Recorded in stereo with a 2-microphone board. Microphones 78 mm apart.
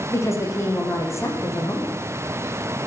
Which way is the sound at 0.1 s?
40° left (ahead or behind).